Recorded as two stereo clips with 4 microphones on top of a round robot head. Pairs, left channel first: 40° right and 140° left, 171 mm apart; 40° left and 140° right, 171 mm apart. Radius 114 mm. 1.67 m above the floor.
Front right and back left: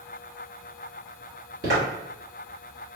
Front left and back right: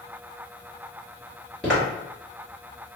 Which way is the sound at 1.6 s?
125° left.